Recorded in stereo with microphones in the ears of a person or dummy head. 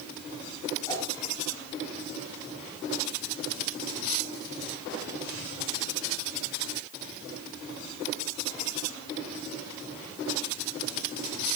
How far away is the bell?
No bell in this recording.